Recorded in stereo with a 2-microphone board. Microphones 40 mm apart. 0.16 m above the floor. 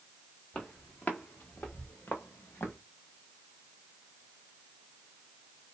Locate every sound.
0.5 s footsteps: 30° left (ahead or behind), 1.4 m; by 2.8 s 85° left, 1.0 m